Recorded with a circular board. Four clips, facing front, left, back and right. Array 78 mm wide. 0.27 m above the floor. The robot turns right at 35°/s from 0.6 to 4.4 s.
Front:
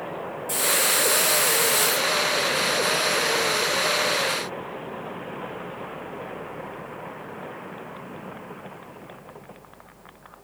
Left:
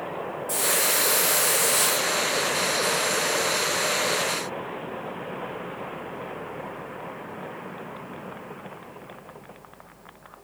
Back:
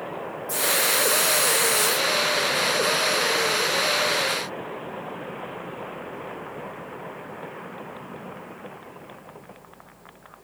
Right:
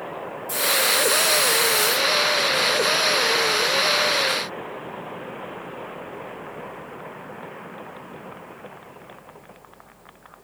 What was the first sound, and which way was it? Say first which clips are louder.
A hiss: right 4 dB, even; 5° right.